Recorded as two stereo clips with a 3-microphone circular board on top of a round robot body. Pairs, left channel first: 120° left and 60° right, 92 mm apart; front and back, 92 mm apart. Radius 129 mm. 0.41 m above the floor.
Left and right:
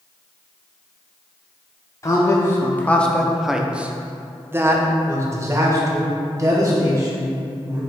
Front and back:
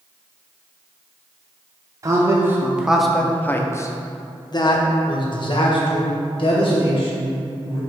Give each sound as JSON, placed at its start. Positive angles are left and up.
{"t": 2.0, "sound": "a man speaking", "azimuth_deg": 155, "distance_m": 0.9}